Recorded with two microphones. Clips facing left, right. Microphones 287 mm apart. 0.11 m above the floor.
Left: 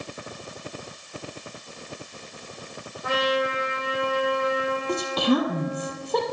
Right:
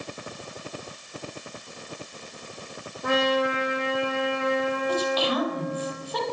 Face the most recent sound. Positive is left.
turn(degrees=55)  # may be behind; listen again after turning